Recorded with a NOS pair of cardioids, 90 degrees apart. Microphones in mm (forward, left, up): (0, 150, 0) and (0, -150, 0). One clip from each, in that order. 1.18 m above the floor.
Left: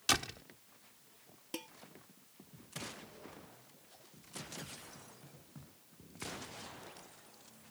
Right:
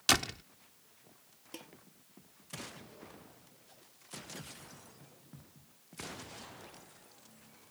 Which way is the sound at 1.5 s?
35° left.